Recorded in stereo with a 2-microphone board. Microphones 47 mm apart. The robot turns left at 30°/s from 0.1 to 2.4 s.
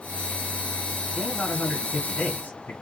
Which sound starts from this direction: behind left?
A man speaking, at 1.1 s.